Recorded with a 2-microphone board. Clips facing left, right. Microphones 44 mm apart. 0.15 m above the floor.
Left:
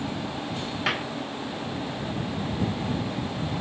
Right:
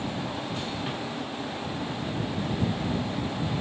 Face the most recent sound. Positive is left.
turn(degrees=75)  # may be behind; listen again after turning